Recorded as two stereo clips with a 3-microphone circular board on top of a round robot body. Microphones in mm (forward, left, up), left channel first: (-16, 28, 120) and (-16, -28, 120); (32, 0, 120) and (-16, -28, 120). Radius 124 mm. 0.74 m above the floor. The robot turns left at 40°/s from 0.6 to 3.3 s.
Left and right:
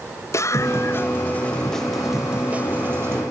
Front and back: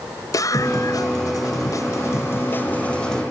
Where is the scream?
55° left; by 3.2 s 50° right.